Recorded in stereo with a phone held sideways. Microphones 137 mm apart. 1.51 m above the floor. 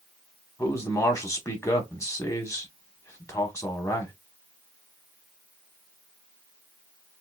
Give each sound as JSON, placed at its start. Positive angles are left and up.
{"t": 0.6, "sound": "a man speaking", "side_deg": 20, "distance_m": 1.2}